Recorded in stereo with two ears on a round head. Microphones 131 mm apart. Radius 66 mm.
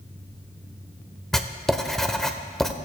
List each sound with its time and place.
1.3 s writing: centre (ahead or behind), 0.9 m